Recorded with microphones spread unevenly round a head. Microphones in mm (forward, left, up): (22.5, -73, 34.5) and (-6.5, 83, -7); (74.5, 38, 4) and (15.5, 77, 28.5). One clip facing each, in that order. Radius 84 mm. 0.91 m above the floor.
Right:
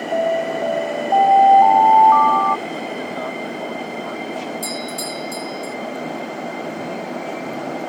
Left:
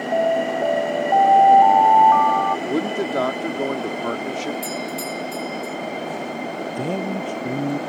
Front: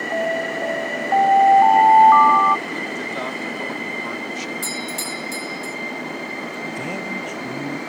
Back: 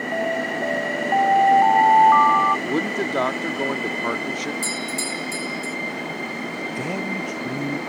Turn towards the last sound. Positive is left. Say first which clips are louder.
# left 2 dB, back 2 dB
turn(degrees=60)